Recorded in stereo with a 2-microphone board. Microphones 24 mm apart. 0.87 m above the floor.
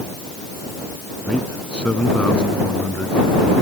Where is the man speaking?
45° left (ahead or behind).